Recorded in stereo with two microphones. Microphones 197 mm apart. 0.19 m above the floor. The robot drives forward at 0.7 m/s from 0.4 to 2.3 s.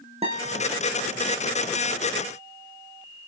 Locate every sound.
0.2 s a guitar: 30° right (ahead or behind), 4 m